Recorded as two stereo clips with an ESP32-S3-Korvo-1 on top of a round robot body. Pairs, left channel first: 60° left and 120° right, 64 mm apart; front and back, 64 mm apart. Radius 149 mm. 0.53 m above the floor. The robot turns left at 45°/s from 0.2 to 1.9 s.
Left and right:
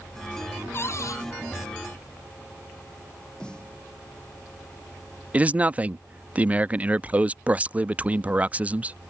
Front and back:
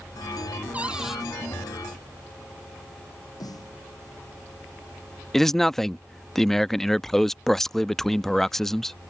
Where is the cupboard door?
110° left; by 1.2 s 90° left.